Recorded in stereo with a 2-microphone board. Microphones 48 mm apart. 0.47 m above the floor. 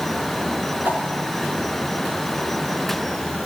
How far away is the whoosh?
About 2.5 m.